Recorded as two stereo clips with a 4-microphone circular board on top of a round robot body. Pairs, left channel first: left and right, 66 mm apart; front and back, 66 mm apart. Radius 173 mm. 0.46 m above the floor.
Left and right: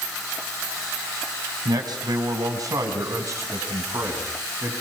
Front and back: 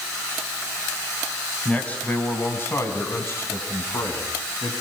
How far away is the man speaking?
About 4.5 m.